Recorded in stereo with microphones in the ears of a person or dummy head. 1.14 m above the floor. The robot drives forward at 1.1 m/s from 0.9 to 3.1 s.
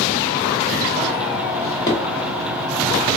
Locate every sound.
1.6 s a drawer: 15° left (ahead or behind), 1.5 m; by 2.0 s 25° left (ahead or behind), 1.1 m